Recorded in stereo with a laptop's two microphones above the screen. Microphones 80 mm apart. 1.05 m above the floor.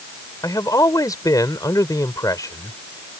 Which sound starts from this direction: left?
A man speaking, at 0.4 s.